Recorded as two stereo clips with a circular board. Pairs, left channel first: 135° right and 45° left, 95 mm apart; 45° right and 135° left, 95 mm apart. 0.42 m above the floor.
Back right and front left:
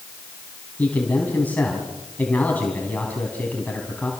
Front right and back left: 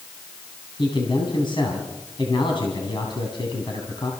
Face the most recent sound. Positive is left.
turn(degrees=-65)